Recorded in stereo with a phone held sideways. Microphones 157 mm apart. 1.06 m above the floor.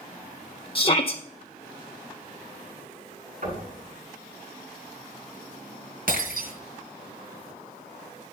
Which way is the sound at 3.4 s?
65° right (ahead or behind).